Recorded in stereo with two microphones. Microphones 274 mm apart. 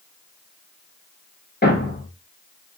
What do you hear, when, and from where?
1.6 s a thud: 40° left (ahead or behind), 1.3 m